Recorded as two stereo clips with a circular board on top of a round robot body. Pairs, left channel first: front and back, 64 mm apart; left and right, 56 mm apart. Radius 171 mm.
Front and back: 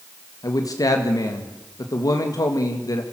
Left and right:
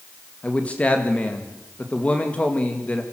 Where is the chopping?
I don't hear chopping.